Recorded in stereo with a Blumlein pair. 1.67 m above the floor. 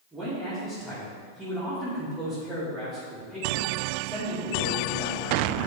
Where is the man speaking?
10° right, 3 m.